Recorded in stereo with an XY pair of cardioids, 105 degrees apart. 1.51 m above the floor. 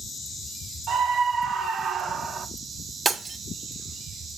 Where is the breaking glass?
30° right, 3 m.